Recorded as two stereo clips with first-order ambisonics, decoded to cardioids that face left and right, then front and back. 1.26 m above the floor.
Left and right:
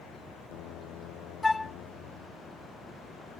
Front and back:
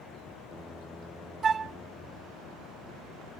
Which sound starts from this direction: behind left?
A flute, at 1.4 s.